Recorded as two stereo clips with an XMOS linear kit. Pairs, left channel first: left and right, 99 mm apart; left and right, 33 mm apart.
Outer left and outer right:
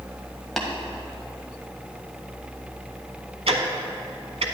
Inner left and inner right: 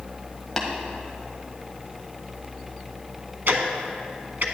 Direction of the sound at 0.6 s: Centre (ahead or behind).